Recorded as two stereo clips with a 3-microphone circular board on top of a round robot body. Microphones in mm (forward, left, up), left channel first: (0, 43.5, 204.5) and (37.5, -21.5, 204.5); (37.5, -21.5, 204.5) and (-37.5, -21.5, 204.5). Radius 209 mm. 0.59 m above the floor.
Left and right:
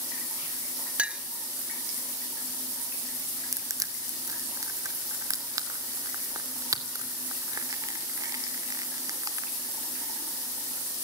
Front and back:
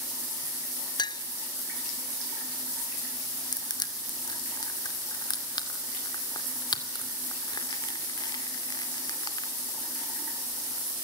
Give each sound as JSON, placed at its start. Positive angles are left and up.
{"t": 1.0, "sound": "a clink", "azimuth_deg": 15, "distance_m": 0.6}
{"t": 3.5, "sound": "crushing", "azimuth_deg": -20, "distance_m": 2.0}